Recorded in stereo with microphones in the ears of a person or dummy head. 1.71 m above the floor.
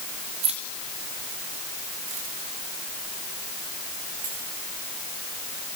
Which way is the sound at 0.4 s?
25° right (ahead or behind).